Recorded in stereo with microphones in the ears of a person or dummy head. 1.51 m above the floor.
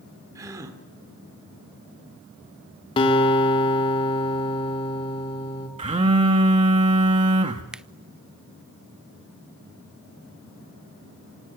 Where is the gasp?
20° right (ahead or behind), 2.5 m.